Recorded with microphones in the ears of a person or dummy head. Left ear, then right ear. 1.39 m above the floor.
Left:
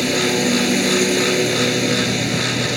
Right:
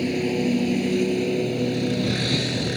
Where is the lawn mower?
55° left (ahead or behind); by 2.8 s 65° left (ahead or behind).